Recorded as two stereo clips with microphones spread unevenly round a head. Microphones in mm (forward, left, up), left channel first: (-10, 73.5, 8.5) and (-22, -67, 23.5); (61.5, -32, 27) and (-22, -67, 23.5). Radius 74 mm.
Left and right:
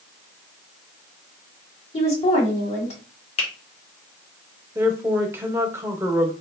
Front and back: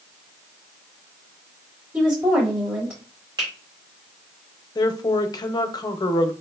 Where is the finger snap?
135° left, 1.2 m.